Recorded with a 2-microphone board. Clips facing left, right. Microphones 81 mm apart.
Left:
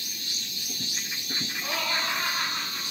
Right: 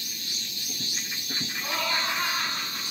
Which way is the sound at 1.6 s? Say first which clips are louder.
Right 1 dB; 30° right (ahead or behind).